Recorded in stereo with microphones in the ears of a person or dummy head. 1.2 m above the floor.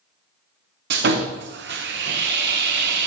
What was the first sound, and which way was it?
Sawing, 60° right (ahead or behind).